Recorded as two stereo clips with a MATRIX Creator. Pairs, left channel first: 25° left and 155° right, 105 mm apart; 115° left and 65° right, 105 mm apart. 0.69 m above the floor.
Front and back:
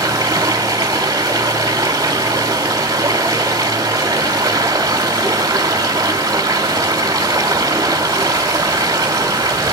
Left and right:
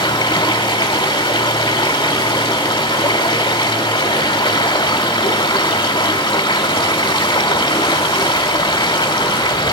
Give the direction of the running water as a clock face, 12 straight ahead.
7 o'clock.